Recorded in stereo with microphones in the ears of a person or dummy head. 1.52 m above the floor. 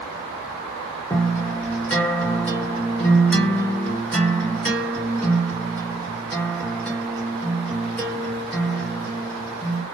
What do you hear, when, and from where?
1.1 s a guitar: 5° left (ahead or behind), 1.3 m